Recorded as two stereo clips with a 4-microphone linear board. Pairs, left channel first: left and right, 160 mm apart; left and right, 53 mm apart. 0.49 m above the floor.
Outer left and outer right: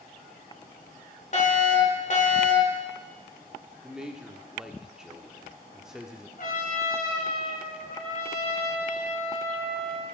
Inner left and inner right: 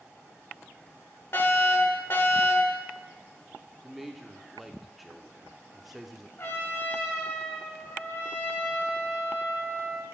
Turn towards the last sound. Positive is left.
turn(degrees=60)  # may be behind; listen again after turning